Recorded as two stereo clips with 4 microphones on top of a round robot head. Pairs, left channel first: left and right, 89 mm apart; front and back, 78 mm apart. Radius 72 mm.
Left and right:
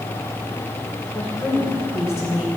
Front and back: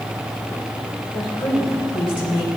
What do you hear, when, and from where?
1.1 s a woman speaking: 5° right, 2.5 m